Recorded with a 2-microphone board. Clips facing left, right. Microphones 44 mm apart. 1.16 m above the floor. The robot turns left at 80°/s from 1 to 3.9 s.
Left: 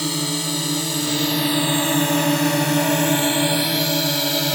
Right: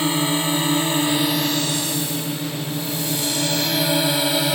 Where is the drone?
25° right (ahead or behind); by 4.6 s 5° right (ahead or behind).